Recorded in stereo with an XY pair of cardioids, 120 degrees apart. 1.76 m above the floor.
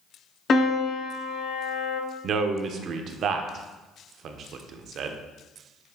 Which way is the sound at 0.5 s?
40° left.